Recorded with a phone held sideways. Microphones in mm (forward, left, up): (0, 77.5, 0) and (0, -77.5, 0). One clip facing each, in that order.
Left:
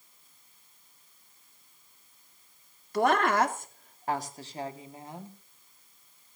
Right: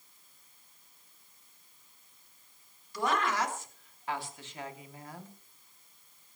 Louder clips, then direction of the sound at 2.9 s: Left 6 dB; 60° left (ahead or behind).